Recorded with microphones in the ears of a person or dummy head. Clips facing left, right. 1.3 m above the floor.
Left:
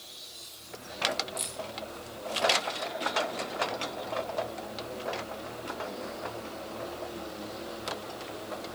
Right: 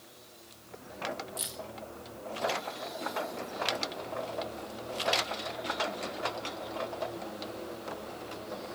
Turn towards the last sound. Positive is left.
turn(degrees=-5)  # may be behind; listen again after turning